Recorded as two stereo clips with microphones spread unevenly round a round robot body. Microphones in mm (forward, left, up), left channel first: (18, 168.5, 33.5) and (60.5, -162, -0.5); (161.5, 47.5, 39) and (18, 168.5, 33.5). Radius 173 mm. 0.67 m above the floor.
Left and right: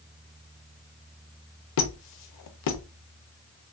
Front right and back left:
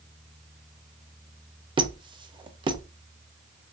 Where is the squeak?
75° left, 0.6 m.